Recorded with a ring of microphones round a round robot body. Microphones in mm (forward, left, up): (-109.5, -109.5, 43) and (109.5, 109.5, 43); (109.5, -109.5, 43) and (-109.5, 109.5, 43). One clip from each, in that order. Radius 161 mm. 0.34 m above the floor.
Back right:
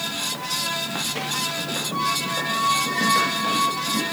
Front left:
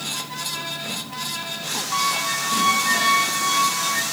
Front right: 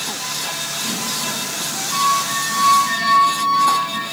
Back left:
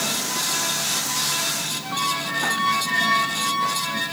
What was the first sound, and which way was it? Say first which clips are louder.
A squeak: front left 3 dB, front right 7 dB; 40° left.